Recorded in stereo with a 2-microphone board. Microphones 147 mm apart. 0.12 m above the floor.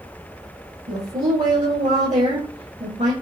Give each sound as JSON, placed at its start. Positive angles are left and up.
{"t": 0.9, "sound": "a woman speaking", "side_deg": -55, "distance_m": 3.0}